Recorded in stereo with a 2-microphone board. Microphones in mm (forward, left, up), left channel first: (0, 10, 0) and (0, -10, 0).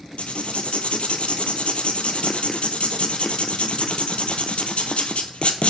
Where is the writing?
80° left, 0.7 m.